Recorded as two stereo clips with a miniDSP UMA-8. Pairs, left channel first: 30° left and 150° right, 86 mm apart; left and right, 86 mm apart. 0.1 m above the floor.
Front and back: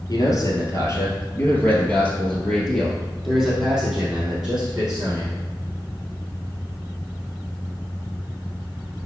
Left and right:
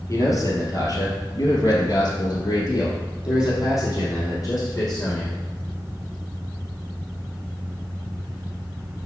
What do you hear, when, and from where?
0.1 s a man speaking: 55° left, 1.8 m; by 5.4 s 135° left, 3.5 m